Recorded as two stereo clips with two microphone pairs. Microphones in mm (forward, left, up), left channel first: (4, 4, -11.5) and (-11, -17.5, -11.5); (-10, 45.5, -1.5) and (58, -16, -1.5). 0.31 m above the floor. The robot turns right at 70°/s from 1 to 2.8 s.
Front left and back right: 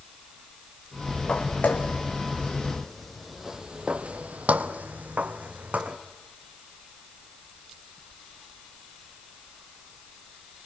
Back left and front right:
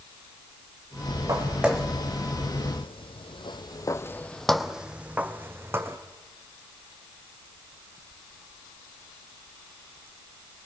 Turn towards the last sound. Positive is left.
turn(degrees=-105)